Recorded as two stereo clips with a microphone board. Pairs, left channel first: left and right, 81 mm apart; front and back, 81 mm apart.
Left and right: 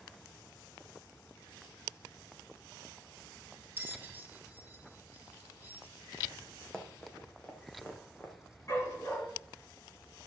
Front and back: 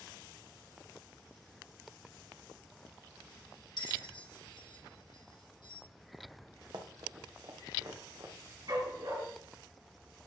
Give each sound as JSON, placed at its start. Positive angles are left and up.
{"t": 3.8, "sound": "a bell", "azimuth_deg": -25, "distance_m": 1.2}
{"t": 6.7, "sound": "running footsteps", "azimuth_deg": 170, "distance_m": 2.0}
{"t": 8.7, "sound": "a dog barking", "azimuth_deg": 145, "distance_m": 6.5}